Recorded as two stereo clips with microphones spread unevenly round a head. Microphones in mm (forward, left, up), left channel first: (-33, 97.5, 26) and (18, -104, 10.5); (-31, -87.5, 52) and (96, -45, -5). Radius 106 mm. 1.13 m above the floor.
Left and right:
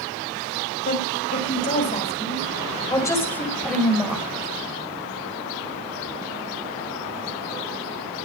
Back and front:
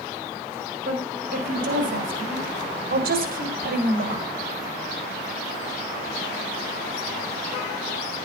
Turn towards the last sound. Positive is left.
turn(degrees=10)